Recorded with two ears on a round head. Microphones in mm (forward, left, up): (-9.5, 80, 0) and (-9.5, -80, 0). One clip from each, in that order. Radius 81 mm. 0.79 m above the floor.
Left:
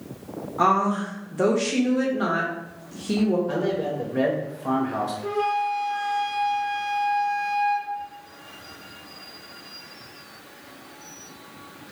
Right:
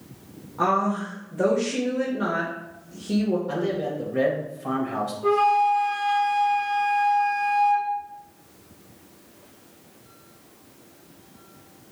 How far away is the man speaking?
About 0.6 m.